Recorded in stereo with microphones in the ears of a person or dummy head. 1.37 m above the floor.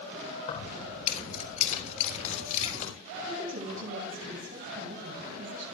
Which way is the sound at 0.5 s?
45° left (ahead or behind).